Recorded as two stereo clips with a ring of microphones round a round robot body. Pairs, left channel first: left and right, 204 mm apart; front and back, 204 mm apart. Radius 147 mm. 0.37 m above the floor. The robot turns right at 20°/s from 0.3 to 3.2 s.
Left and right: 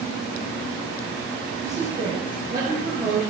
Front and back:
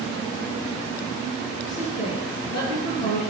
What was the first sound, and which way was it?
A woman speaking, 35° right.